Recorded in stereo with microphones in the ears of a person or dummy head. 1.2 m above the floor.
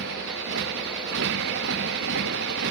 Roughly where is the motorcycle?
Right.